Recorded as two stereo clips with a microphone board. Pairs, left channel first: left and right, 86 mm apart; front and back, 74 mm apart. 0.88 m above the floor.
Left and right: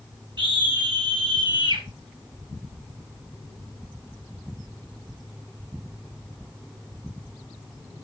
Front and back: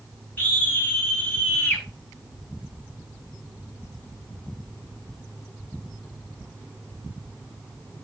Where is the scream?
60° right, 10 m; by 1.9 s 65° right, 8.5 m.